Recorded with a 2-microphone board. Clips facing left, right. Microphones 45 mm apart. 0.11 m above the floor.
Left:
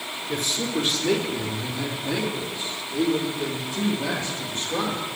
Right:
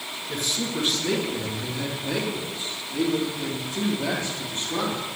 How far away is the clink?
I don't hear a clink.